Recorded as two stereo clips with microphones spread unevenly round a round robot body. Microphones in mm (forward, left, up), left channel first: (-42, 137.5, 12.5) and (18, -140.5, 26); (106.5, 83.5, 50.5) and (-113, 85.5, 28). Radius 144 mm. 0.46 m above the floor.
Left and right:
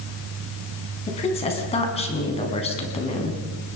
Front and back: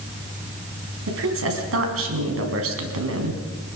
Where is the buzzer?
No buzzer in this recording.